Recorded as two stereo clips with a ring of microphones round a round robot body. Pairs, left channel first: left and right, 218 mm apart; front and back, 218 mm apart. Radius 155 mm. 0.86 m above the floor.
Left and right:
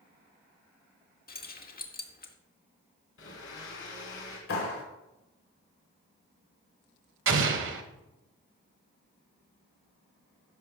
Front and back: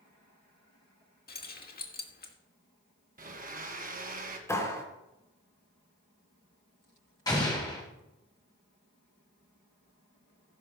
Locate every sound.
1.3 s keys jangling: 45° left, 1.6 m
3.2 s a blender: 135° left, 1.6 m
4.5 s a clap: 75° left, 3 m
7.3 s an explosion: 75° right, 1.2 m